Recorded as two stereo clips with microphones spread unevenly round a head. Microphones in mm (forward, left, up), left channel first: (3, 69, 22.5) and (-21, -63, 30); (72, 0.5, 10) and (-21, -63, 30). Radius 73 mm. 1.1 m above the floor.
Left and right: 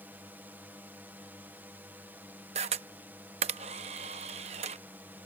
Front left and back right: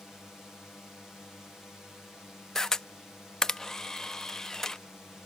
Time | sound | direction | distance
0.0 | a drone | 40° right | ?
2.5 | a camera shutter | 55° right | ?